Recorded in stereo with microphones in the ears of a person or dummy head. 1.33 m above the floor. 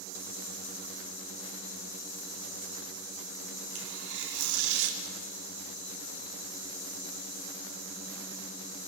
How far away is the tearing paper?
About 2.5 m.